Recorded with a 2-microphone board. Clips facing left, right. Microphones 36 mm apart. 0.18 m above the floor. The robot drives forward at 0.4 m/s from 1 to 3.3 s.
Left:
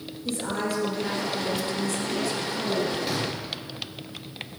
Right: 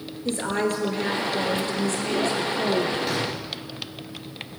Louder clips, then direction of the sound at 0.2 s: Right 4 dB; 55° right (ahead or behind).